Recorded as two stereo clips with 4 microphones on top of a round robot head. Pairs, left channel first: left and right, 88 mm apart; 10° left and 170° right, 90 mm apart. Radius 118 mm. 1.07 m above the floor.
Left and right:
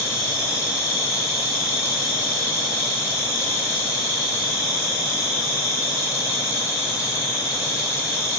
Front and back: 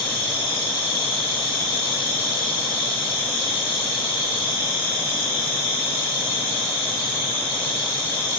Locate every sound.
0.0 s an insect: 35° left, 5 m